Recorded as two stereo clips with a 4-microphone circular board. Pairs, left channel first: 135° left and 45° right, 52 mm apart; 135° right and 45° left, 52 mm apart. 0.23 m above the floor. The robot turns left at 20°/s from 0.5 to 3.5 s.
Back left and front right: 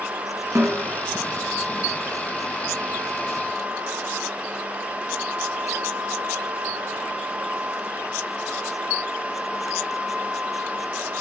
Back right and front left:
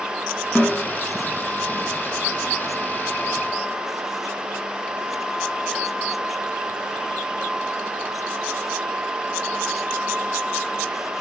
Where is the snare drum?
65° right, 3.5 m; by 0.8 s 70° right, 3.5 m.